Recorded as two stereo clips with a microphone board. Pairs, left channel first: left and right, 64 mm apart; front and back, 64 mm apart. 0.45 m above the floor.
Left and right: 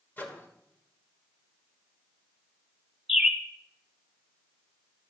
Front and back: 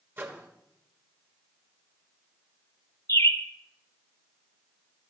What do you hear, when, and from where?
0.2 s a microwave: 140° left, 1.4 m
3.1 s a bird: straight ahead, 1.8 m